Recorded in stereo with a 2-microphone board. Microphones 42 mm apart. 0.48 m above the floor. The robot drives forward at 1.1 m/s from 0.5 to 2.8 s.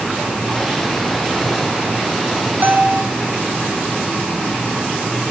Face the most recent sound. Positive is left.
turn(degrees=-60)  # may be behind; listen again after turning